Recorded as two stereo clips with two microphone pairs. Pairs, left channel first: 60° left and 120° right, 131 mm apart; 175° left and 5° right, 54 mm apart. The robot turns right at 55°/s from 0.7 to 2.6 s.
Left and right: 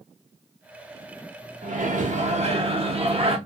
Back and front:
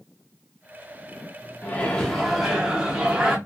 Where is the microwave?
130° right, 0.8 m; by 3.4 s 75° right, 0.8 m.